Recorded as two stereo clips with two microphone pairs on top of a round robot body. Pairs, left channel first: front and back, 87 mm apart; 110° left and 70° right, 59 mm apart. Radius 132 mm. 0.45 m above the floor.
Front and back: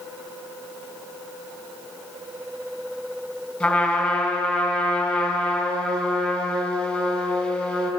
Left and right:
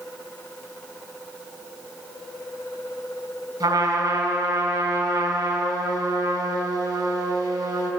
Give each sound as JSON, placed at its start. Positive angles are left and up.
{"t": 3.6, "sound": "a trumpet", "azimuth_deg": -75, "distance_m": 4.0}